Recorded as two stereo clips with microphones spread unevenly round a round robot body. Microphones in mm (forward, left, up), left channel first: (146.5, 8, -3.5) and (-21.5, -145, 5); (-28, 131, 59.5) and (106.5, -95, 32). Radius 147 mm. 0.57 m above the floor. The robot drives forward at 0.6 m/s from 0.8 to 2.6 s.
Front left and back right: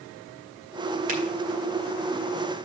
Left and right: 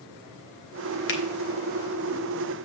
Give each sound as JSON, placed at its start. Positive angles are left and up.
{"t": 1.1, "sound": "a finger snap", "azimuth_deg": 165, "distance_m": 1.2}